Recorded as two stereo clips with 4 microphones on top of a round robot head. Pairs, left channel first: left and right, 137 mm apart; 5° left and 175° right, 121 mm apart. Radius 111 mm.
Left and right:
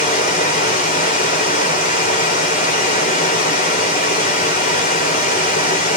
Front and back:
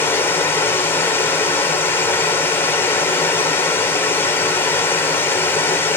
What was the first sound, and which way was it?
Running water, 80° left.